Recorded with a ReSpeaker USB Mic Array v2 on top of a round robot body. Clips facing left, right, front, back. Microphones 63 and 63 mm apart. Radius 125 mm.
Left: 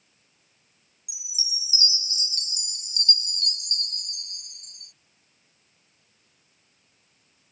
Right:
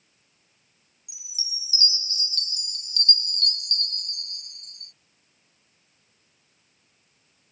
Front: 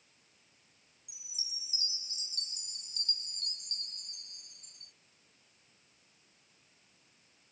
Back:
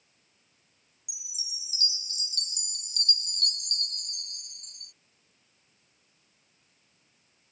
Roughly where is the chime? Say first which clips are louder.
Left 3 dB, back 3 dB; behind.